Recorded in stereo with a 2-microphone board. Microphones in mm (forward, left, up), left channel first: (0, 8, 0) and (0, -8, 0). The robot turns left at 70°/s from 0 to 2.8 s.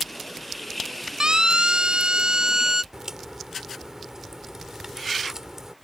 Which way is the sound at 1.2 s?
50° right (ahead or behind).